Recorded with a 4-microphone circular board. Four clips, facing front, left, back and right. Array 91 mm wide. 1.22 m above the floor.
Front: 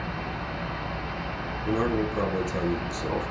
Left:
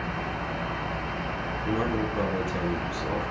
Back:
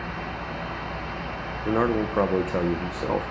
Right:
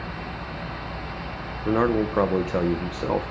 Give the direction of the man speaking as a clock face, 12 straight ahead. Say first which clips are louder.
Right 7 dB, back 3 dB; 4 o'clock.